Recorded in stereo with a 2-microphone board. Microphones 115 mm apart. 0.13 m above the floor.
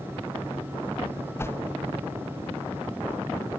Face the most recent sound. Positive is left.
turn(degrees=20)  # may be behind; listen again after turning